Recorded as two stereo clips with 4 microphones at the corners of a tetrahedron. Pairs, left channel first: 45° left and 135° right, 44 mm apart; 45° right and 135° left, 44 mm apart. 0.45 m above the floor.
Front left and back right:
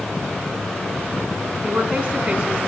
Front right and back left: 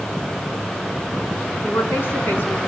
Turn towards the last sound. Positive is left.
turn(degrees=-70)